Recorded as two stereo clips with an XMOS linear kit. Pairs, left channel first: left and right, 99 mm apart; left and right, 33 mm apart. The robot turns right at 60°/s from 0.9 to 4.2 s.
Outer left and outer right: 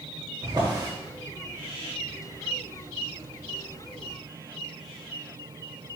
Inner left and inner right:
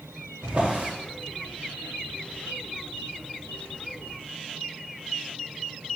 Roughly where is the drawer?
Right.